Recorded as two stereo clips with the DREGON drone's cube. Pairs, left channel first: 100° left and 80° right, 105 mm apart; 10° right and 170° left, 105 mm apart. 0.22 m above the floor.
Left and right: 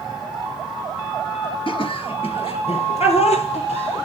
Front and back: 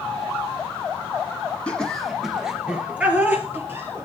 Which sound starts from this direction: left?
Laughter, at 1.7 s.